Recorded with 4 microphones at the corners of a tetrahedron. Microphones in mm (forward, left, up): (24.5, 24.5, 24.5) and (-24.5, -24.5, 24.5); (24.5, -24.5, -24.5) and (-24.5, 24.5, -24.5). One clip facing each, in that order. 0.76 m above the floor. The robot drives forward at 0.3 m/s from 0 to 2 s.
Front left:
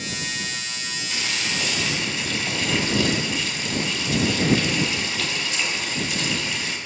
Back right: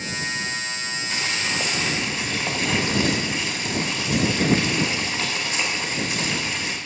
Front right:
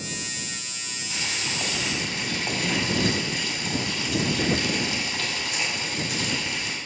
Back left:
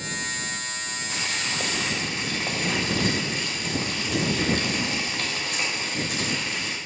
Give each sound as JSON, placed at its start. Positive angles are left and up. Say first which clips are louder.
{"t": 1.1, "sound": "boiling", "louder": "back right 1 dB, even", "azimuth_deg": 170, "distance_m": 2.5}